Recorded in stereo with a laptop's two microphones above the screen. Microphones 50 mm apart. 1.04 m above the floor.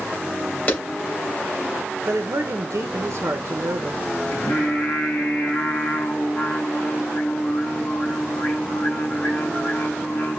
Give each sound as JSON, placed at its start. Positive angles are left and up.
{"t": 0.7, "sound": "a clap", "side_deg": 30, "distance_m": 2.5}
{"t": 2.1, "sound": "a man speaking", "side_deg": -70, "distance_m": 0.6}
{"t": 4.3, "sound": "singing", "side_deg": 50, "distance_m": 2.0}